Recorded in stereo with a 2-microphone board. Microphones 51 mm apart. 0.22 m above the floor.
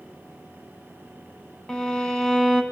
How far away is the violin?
About 2.0 m.